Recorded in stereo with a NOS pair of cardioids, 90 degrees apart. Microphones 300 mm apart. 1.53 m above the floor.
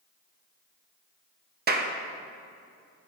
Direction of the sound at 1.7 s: 35° right.